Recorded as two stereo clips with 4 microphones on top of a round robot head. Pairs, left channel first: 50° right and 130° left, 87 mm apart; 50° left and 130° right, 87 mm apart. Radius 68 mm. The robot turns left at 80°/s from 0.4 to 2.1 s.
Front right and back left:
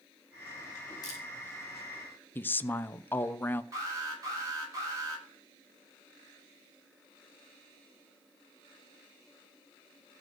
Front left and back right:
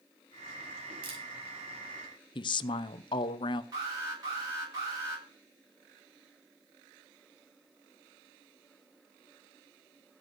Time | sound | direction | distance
1.0 | a camera shutter | 100° right | 4.5 m
2.4 | a woman speaking | 20° left | 0.9 m
3.7 | an alarm | 175° right | 8 m